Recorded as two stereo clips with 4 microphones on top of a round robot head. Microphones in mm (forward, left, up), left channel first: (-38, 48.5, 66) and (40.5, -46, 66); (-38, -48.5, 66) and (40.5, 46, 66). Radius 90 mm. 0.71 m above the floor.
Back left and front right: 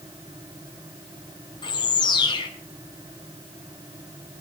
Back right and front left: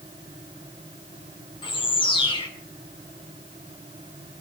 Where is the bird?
175° right, 3 m.